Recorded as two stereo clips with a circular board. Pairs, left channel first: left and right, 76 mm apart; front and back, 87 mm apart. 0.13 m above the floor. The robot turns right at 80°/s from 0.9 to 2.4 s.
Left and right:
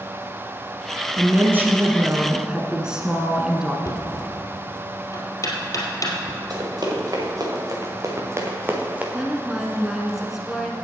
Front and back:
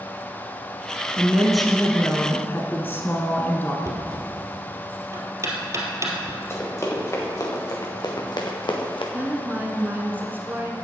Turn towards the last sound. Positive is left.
turn(degrees=-165)